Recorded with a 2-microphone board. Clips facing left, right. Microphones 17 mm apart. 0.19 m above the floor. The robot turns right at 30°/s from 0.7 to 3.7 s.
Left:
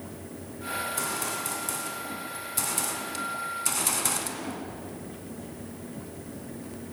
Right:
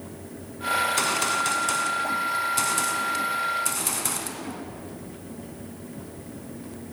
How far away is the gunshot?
About 2 m.